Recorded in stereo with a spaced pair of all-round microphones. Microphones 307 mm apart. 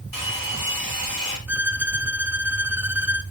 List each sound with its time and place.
0.1 s a hair dryer: 80° left, 3.5 m
1.5 s a violin: 5° right (ahead or behind), 0.9 m